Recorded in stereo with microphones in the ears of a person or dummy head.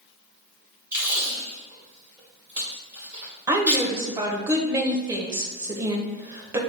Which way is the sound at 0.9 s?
15° right (ahead or behind).